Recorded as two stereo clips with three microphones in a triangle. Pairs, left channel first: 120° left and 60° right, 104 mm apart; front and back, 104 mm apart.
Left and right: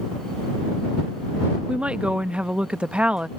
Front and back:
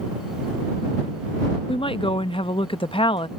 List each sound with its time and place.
1.7 s a woman speaking: 20° left